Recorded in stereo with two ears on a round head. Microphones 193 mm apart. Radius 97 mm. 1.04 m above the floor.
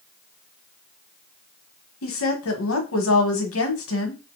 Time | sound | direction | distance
2.0 | a woman speaking | 65° left (ahead or behind) | 0.9 m